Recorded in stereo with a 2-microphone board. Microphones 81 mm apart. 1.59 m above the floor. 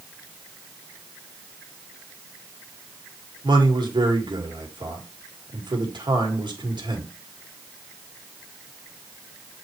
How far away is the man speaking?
About 1.8 m.